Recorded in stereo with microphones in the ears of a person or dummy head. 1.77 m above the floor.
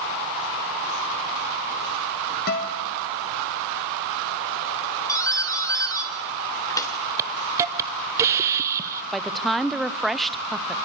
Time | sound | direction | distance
2.5 | a guitar | 55° left (ahead or behind) | 1.9 m
5.1 | a doorbell | 20° left (ahead or behind) | 2 m
7.2 | a hiss | 15° right (ahead or behind) | 0.9 m
9.1 | a woman speaking | centre (ahead or behind) | 0.8 m